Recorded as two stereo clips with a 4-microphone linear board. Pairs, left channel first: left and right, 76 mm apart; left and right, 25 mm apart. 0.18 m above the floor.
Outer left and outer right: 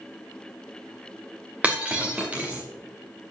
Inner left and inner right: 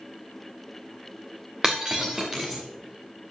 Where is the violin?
No violin in this recording.